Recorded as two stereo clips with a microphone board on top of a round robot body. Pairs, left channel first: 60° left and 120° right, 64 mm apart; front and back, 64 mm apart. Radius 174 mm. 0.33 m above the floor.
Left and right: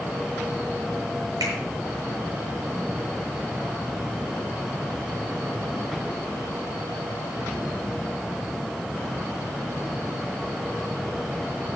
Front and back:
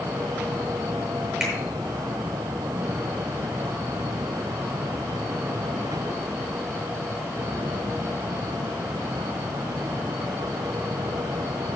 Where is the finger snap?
100° right, 7.5 m.